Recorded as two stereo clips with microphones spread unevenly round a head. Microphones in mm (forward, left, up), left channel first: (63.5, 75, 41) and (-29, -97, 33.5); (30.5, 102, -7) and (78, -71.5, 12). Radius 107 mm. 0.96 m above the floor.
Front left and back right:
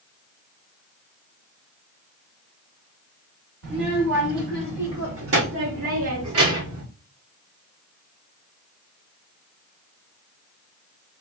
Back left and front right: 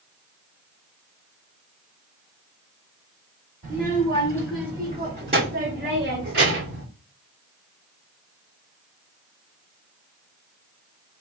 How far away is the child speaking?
About 2.5 m.